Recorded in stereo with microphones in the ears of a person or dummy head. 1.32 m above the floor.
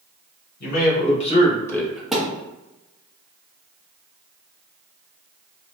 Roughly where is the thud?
Centre.